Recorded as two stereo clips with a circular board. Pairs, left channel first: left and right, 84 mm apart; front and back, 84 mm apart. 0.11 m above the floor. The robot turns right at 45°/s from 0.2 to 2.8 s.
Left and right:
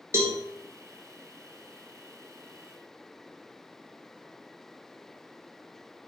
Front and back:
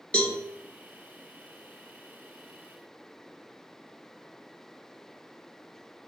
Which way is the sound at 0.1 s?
65° right.